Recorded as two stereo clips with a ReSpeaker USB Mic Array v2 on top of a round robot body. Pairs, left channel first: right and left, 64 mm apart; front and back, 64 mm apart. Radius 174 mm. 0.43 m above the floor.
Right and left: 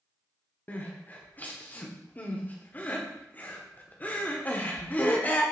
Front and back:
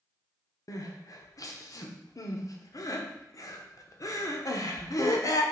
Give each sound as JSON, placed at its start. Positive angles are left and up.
{"t": 0.7, "sound": "crying", "azimuth_deg": -30, "distance_m": 1.5}